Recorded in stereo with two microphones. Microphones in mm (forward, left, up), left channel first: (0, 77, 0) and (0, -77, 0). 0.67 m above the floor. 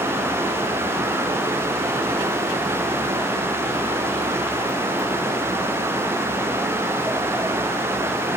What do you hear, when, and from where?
Only background noise.